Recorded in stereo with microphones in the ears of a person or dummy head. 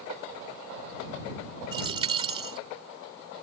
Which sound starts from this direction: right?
A dropped coin, at 1.7 s.